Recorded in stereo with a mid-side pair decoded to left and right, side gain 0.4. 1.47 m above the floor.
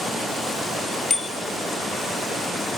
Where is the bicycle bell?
35° left, 5.5 m.